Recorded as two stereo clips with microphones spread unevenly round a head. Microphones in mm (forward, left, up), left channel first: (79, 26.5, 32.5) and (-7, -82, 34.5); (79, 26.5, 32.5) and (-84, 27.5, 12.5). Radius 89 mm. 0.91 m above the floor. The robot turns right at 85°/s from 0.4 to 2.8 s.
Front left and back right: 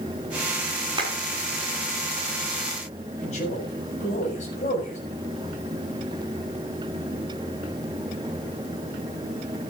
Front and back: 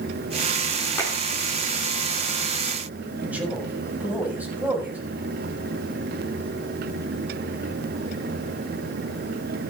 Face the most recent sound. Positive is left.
turn(degrees=100)